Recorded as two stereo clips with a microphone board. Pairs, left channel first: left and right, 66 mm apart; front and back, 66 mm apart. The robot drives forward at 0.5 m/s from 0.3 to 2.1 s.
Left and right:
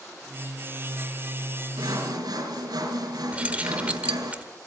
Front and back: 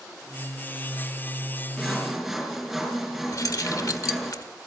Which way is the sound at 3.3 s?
20° right.